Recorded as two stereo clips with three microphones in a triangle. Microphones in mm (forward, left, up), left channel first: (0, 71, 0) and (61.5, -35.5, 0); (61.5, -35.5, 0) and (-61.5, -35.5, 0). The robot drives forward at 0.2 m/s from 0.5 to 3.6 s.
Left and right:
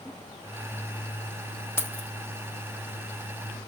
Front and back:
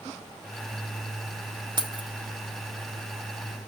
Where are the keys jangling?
Straight behind, 0.6 m.